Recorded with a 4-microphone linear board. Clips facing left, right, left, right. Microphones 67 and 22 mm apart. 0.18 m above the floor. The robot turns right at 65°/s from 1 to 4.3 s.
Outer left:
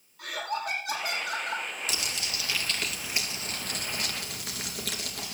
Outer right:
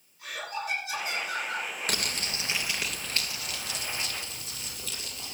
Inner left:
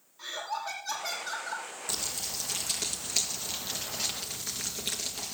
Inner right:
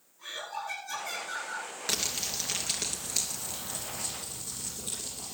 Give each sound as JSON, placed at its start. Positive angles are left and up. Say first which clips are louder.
{"t": 0.2, "sound": "laughter", "louder": "outer left 3 dB, inner left 3 dB", "azimuth_deg": 70, "distance_m": 8.0}
{"t": 1.9, "sound": "crumpling", "louder": "outer right 2 dB, inner right 4 dB", "azimuth_deg": -65, "distance_m": 3.0}